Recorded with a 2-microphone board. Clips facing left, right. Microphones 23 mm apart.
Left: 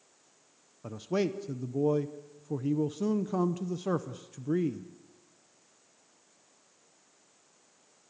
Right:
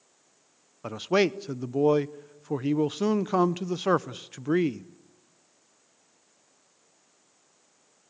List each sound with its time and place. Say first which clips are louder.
0.8 s a man speaking: right 7 dB; 50° right (ahead or behind), 0.6 m